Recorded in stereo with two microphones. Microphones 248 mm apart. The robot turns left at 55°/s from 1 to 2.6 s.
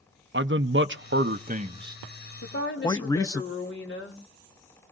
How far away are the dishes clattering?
I don't hear dishes clattering.